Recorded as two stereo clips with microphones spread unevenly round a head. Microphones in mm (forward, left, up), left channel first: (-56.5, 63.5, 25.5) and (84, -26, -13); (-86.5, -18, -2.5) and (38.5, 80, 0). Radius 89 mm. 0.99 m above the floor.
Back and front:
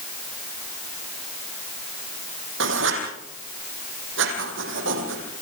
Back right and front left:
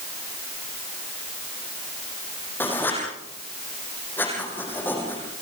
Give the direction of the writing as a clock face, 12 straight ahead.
2 o'clock.